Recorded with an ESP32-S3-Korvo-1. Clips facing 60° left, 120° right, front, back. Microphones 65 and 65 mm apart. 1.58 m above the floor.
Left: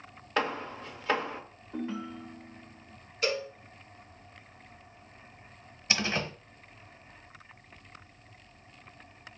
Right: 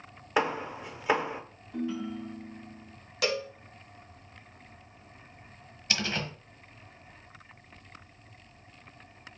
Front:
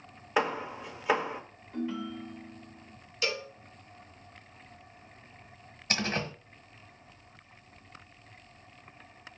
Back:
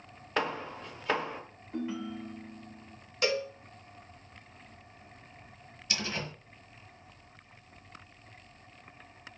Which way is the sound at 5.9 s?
Straight ahead.